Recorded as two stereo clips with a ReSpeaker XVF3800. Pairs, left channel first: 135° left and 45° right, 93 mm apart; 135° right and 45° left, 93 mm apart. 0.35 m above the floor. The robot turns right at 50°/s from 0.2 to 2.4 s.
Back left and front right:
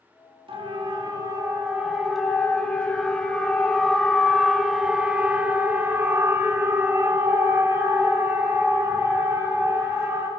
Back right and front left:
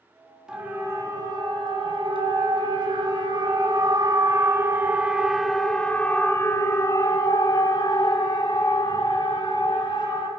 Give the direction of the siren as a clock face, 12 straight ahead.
1 o'clock.